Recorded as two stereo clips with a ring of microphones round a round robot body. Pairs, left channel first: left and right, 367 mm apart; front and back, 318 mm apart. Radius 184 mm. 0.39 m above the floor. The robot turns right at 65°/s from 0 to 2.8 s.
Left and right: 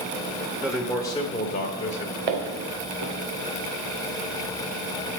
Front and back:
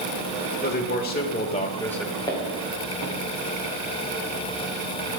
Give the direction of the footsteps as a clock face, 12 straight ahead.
3 o'clock.